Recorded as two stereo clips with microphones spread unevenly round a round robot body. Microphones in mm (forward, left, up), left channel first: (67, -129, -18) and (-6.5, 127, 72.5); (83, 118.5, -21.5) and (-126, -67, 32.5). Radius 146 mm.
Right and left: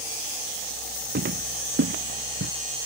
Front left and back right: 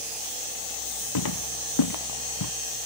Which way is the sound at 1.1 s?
50° left.